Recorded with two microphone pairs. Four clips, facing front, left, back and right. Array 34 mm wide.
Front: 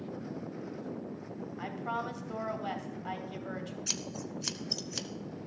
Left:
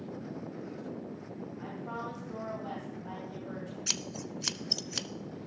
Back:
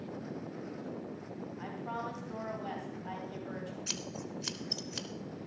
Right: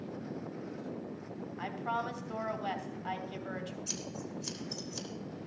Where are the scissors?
90° left, 0.6 m.